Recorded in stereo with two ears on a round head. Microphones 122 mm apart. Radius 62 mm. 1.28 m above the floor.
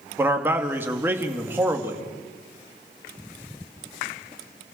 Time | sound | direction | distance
0.2 | a man speaking | 15° right (ahead or behind) | 2 m